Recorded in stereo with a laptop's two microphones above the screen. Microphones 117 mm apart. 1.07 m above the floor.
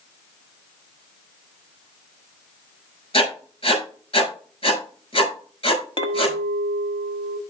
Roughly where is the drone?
No drone in this recording.